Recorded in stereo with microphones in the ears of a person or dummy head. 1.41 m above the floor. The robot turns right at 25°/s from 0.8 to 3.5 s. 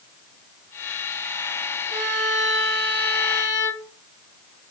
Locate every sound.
1.9 s a violin: 20° right, 3.5 m; by 3.9 s 20° left, 3.5 m